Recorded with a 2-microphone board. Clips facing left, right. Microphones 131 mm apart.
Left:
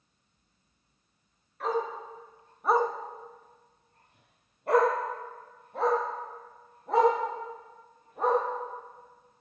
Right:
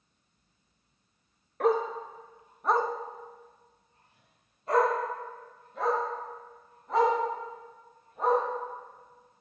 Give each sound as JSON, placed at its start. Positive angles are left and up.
{"t": 1.6, "sound": "a dog barking", "side_deg": -65, "distance_m": 0.8}